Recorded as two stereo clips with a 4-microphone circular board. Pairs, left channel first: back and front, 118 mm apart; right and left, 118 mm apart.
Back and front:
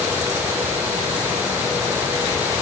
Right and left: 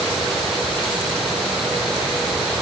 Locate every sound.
Only background noise.